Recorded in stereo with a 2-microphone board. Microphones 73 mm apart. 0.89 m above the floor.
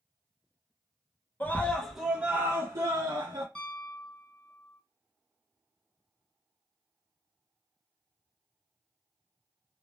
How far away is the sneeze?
I don't hear a sneeze.